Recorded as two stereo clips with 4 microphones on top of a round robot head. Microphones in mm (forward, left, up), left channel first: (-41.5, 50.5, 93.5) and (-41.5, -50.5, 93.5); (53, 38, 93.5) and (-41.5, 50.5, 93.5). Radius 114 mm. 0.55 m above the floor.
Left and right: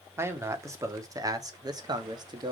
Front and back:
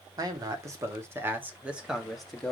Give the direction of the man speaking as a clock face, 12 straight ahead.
5 o'clock.